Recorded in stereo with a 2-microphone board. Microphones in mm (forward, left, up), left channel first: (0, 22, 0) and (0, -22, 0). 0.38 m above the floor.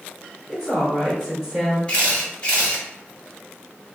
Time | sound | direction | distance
0.5 | a woman speaking | centre (ahead or behind) | 0.8 m
1.9 | a camera shutter | 25° left (ahead or behind) | 1.3 m